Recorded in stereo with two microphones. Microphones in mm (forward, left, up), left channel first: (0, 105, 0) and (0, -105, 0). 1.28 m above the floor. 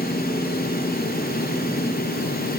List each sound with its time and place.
Only background noise.